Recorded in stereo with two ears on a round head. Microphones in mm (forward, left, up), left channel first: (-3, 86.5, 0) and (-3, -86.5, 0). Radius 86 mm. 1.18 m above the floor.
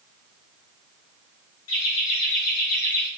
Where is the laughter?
75° left (ahead or behind), 2.5 m; by 3.1 s 60° left (ahead or behind), 2.5 m.